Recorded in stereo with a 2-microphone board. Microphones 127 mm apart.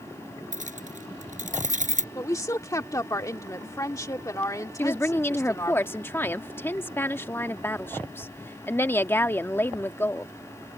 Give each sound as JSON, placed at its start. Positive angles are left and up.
{"t": 0.5, "sound": "keys jangling", "side_deg": -80}
{"t": 2.1, "sound": "a woman speaking", "side_deg": 25}
{"t": 4.8, "sound": "a woman speaking", "side_deg": 20}